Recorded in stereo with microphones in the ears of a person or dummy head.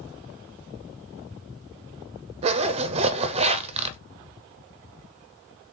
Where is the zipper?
40° right (ahead or behind), 0.6 m.